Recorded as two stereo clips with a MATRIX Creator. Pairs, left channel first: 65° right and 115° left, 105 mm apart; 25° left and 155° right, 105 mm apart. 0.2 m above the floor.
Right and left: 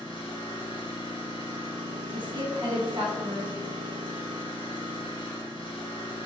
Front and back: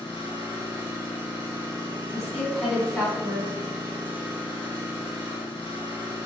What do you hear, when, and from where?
0.0 s an engine running: 105° right, 1.6 m
2.1 s a woman speaking: 110° left, 1.4 m